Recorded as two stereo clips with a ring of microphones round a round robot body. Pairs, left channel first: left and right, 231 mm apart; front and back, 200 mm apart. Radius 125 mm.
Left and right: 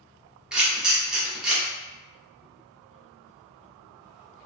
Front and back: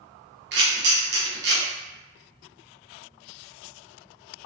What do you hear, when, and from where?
0.5 s a camera shutter: 175° right, 0.8 m